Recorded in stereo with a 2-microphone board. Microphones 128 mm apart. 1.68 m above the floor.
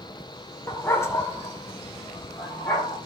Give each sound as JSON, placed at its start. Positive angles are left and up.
{"t": 0.7, "sound": "a dog barking", "side_deg": 20, "distance_m": 2.0}